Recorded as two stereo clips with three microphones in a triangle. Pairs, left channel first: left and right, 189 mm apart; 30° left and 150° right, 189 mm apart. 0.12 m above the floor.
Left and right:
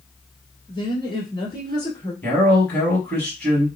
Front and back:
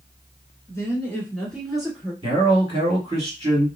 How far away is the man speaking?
About 1.7 m.